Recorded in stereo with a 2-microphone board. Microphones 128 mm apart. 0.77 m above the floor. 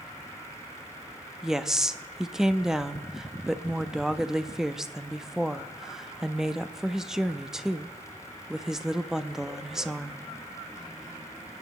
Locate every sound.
1.4 s a woman speaking: 5° right (ahead or behind), 0.7 m